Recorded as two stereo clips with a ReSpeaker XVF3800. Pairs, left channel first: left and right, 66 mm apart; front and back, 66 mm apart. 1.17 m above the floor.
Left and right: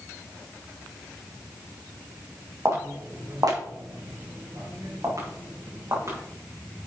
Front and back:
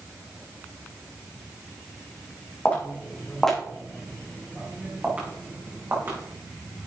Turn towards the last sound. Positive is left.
turn(degrees=-130)